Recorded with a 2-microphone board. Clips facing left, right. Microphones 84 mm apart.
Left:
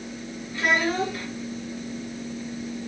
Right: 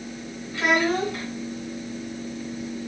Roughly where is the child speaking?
Right.